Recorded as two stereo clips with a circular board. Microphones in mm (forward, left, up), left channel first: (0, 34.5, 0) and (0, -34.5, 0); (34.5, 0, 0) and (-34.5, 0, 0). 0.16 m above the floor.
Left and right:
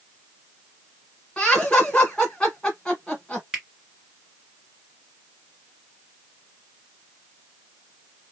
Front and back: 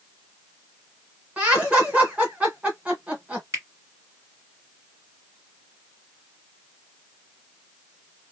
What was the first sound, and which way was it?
Laughter, 145° left.